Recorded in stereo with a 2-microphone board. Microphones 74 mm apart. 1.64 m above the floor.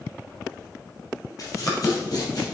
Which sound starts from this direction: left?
Running footsteps, at 1.4 s.